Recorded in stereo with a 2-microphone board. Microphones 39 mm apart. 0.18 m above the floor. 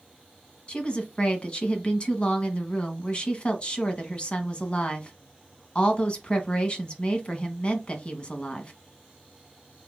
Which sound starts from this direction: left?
A woman speaking, at 0.7 s.